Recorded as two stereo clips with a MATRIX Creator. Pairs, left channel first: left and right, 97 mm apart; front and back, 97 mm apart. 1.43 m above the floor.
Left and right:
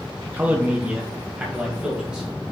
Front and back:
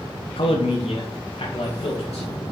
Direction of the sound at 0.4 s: 15° right.